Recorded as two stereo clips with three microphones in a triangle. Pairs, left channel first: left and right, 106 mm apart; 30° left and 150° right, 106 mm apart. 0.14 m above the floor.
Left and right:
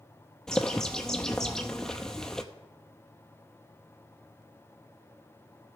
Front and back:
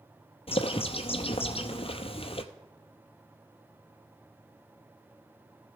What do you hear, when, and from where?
0.5 s a bird: 5° left, 0.8 m